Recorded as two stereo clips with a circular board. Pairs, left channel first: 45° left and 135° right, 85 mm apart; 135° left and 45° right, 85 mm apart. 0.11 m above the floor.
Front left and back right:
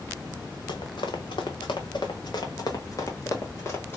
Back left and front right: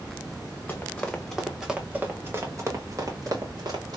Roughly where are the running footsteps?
Ahead left.